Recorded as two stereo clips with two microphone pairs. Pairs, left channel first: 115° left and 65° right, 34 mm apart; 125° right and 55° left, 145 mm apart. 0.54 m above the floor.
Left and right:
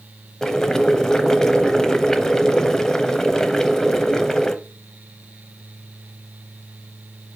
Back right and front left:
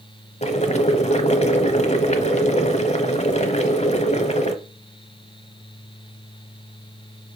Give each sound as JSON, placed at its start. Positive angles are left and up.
{"t": 0.4, "sound": "boiling", "azimuth_deg": -170, "distance_m": 0.8}